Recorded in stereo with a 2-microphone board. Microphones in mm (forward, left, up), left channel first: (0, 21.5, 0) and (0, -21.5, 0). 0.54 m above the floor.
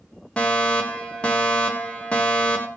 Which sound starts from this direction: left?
A fire alarm, at 0.4 s.